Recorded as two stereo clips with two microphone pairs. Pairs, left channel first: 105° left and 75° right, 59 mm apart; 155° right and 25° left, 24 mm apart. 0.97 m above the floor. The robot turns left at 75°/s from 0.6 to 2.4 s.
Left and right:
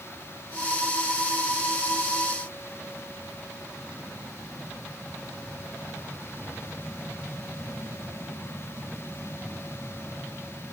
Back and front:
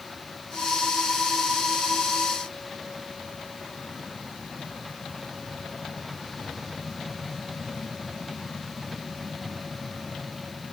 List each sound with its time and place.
Only background noise.